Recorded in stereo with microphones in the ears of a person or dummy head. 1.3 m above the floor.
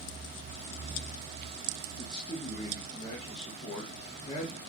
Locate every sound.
2.0 s a man speaking: 30° left (ahead or behind), 0.8 m